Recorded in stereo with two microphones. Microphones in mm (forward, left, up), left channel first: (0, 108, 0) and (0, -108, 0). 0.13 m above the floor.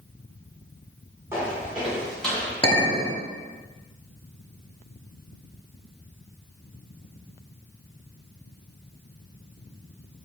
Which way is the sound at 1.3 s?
10° right (ahead or behind).